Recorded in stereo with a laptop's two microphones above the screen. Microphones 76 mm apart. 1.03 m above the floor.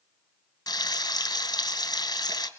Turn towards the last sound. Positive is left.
turn(degrees=55)  # may be behind; listen again after turning